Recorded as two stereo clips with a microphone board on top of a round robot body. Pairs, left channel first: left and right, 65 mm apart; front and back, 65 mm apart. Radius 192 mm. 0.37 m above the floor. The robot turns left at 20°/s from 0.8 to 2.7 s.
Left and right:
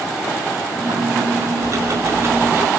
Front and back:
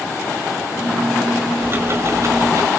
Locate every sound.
1.6 s ticking: 125° right, 1.5 m; by 2.7 s 145° right, 1.5 m